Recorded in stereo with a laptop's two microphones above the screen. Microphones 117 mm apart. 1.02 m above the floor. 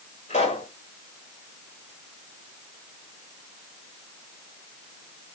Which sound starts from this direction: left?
A pop, at 0.3 s.